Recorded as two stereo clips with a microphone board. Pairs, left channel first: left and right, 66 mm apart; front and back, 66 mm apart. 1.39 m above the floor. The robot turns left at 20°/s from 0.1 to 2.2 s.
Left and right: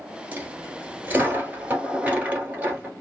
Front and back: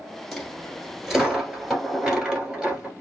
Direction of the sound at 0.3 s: 80° right.